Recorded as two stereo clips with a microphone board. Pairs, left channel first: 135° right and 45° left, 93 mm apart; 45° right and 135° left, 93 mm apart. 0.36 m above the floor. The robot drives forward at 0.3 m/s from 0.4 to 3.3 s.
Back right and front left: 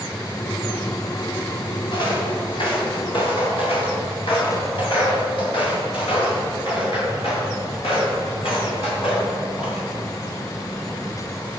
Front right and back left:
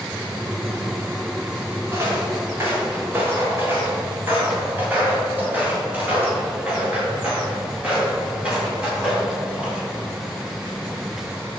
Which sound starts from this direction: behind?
Footsteps, at 1.9 s.